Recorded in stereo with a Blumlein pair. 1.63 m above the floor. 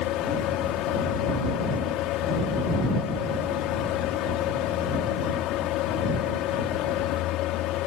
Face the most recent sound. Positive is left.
turn(degrees=35)